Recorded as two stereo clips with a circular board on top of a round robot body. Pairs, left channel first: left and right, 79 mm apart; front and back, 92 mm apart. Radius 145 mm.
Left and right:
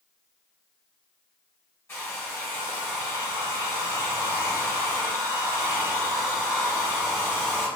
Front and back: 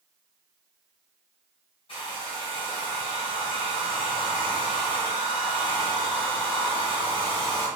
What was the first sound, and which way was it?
A hair dryer, 30° left.